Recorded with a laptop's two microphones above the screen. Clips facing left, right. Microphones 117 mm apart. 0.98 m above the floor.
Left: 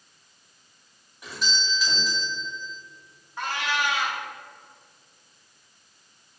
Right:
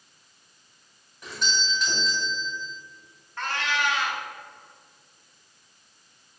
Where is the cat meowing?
10° left (ahead or behind), 0.7 m.